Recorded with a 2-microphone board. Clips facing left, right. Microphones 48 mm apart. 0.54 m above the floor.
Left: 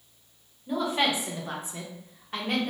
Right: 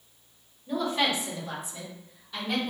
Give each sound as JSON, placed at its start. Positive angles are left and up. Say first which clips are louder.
{"t": 0.7, "sound": "a woman speaking", "louder": "left 1 dB", "side_deg": 10, "distance_m": 1.3}